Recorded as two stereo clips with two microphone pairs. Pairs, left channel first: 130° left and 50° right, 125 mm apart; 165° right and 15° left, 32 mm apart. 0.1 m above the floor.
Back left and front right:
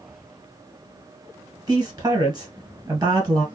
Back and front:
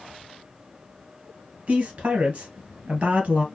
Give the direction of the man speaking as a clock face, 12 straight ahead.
12 o'clock.